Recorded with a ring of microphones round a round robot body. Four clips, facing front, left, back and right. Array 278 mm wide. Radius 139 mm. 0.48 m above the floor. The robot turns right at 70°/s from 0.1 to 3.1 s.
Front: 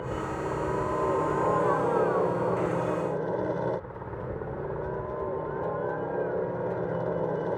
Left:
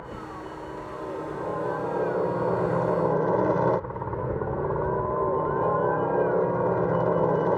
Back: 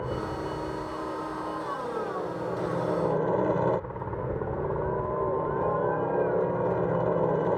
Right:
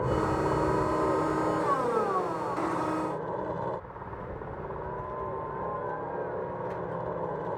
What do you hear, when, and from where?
0.0 s a helicopter: 100° right; by 7.6 s 110° left